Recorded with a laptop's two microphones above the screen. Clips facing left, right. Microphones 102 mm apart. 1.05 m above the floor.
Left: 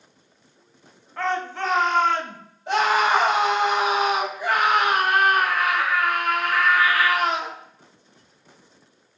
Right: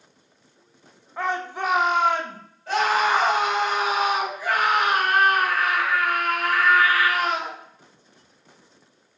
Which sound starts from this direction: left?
A scream, at 2.7 s.